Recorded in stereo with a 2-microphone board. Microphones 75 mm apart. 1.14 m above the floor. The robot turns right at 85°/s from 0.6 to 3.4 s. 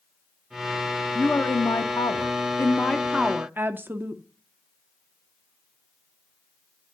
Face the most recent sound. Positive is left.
turn(degrees=-155)